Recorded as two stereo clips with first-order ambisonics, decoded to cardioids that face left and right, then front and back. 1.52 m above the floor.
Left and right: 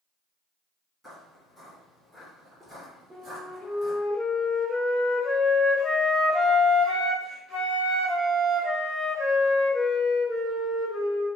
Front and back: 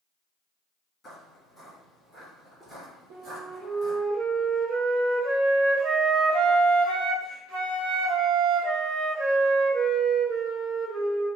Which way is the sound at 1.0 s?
5° left.